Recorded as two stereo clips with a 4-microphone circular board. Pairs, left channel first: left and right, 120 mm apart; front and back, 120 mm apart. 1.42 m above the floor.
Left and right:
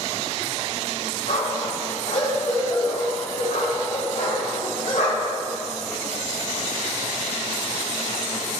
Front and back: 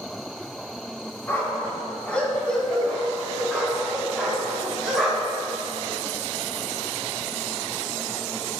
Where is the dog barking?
75° left, 4.5 m; by 5.4 s 100° left, 7 m.